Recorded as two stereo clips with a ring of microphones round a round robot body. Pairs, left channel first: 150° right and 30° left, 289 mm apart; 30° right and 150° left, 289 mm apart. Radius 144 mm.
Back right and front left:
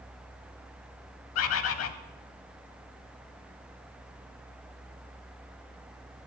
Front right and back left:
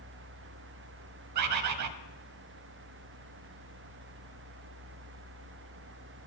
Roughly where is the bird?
Behind.